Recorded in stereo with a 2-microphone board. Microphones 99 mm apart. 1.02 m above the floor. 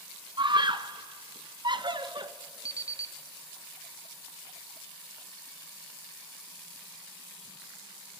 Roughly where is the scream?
Right.